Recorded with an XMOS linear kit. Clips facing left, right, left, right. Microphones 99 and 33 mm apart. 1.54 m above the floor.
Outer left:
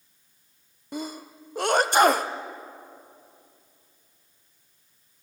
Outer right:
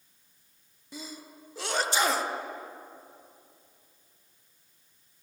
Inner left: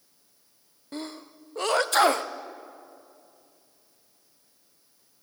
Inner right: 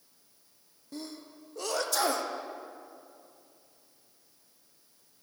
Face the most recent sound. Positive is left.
turn(degrees=55)  # may be behind; listen again after turning